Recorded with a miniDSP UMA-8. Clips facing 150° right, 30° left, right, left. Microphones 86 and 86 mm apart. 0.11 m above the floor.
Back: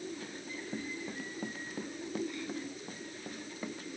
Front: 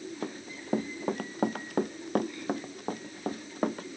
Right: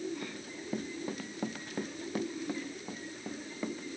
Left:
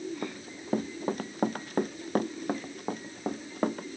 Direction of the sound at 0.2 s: 50° left.